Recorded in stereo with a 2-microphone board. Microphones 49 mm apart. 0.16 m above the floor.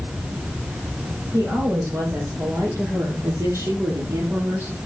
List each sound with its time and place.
1.3 s a woman speaking: 75° right (ahead or behind), 5 m; by 4.8 s 70° right (ahead or behind), 3.5 m